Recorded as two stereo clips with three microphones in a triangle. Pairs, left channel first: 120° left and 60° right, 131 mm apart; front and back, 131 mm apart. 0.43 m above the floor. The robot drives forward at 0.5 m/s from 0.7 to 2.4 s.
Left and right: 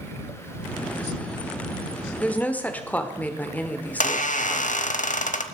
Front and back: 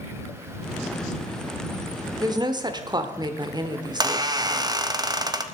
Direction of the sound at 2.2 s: 170° right.